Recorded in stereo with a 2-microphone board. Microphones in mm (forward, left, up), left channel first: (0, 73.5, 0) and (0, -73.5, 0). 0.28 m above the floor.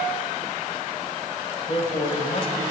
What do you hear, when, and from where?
1.7 s a man speaking: 45° left (ahead or behind), 1.1 m